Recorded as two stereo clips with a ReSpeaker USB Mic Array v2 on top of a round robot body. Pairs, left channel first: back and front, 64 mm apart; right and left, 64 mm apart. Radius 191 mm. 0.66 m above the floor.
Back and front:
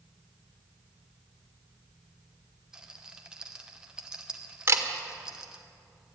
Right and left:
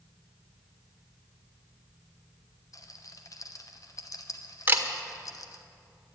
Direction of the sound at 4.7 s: 35° left.